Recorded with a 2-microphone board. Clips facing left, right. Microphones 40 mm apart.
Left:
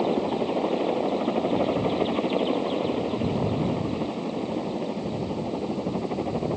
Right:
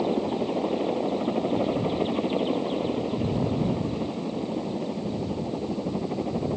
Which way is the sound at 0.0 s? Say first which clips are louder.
Left 1 dB; 20° left (ahead or behind).